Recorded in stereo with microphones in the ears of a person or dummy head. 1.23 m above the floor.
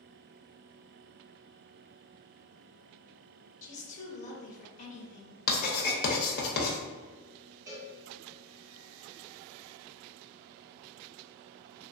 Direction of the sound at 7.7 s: 15° right (ahead or behind).